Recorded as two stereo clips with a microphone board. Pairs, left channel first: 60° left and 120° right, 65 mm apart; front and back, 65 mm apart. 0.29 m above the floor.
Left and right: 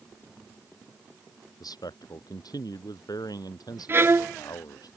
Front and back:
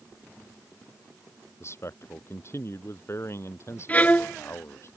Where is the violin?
65° right.